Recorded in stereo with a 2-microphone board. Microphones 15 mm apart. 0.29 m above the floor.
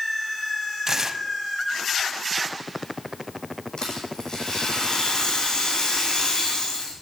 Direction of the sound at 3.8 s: 50° left (ahead or behind).